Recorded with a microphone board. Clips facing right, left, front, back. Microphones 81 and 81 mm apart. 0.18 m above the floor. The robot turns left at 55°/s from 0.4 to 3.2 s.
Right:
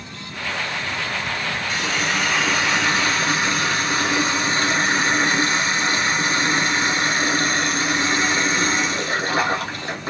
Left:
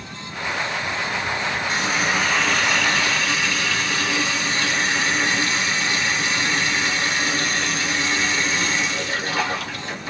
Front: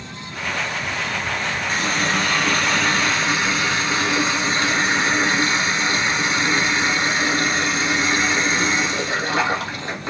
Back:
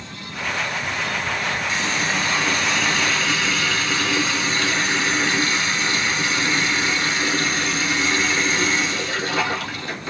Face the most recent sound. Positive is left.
turn(degrees=-50)